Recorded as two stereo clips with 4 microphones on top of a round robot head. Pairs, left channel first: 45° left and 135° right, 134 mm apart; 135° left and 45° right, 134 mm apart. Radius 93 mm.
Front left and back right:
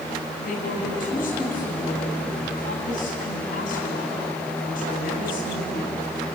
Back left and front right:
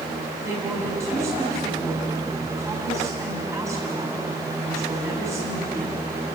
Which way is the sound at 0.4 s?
25° left.